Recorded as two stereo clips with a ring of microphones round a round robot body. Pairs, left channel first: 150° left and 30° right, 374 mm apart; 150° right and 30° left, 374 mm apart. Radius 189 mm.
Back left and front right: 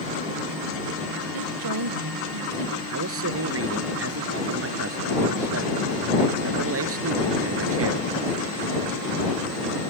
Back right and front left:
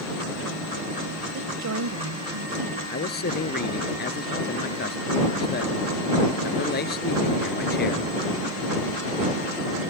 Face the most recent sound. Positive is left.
turn(degrees=-85)